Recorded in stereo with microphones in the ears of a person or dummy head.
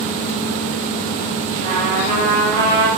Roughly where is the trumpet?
Right.